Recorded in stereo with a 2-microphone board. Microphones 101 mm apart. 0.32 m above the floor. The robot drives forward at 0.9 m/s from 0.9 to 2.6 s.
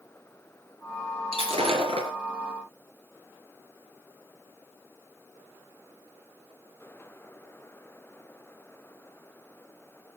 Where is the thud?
No thud in this recording.